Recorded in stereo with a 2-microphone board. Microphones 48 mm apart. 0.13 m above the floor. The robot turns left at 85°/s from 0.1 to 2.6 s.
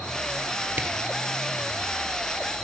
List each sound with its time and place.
0.8 s a camera shutter: 35° right (ahead or behind), 1.5 m; by 0.9 s 25° right (ahead or behind), 1.5 m